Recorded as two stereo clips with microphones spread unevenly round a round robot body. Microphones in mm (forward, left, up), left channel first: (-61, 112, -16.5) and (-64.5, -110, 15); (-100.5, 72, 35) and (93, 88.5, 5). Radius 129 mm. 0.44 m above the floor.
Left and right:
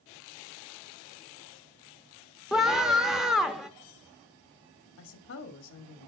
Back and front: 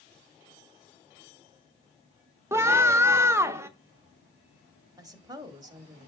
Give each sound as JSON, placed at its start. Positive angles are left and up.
{"t": 2.5, "sound": "a scream", "azimuth_deg": 15, "distance_m": 0.8}
{"t": 5.0, "sound": "a woman speaking", "azimuth_deg": 75, "distance_m": 1.7}